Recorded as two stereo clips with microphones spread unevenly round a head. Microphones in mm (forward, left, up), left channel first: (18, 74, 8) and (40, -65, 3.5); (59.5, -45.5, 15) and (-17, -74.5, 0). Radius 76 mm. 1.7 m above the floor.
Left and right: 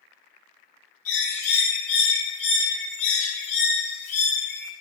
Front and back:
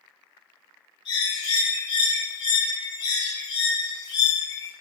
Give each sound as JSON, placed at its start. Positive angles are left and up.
{"t": 1.1, "sound": "a bird", "azimuth_deg": 75, "distance_m": 3.5}